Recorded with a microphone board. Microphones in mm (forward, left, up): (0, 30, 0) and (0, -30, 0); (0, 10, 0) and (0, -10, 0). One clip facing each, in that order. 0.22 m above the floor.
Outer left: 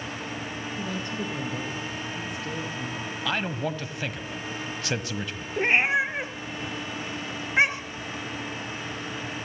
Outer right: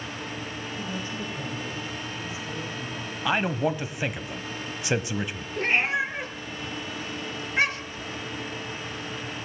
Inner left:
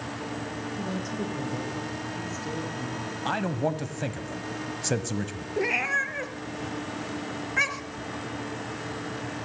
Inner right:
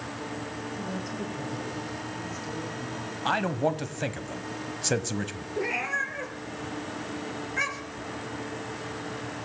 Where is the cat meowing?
20° left (ahead or behind), 1.7 m.